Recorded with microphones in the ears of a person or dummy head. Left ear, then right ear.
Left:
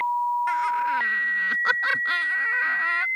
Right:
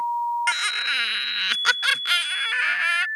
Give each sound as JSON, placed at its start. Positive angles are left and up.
{"t": 0.5, "sound": "laughter", "side_deg": -65}